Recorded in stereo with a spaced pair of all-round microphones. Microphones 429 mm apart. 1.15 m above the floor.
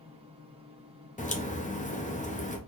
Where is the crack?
20° left (ahead or behind), 0.6 m.